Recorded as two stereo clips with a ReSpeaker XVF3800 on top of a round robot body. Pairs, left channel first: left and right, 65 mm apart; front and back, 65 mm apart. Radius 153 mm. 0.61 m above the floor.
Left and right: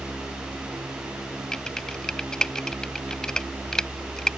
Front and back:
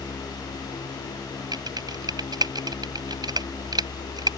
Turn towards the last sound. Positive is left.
turn(degrees=170)